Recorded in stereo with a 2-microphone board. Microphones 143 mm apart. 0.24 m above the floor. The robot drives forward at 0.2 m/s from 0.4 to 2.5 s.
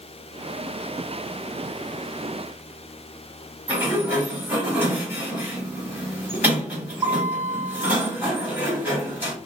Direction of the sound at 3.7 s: 15° right (ahead or behind).